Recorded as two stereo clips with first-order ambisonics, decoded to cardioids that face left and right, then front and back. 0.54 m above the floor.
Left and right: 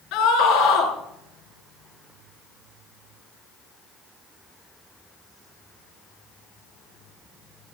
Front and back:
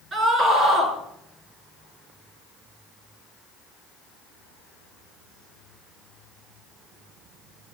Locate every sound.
0.1 s a scream: 115° left, 7 m